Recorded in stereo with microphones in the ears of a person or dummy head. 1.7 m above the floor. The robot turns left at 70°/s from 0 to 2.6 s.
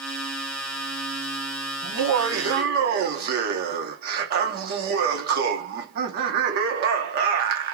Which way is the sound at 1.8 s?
65° right.